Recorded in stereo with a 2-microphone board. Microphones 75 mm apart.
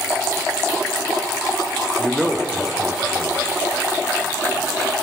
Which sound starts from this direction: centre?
A man speaking, at 2.0 s.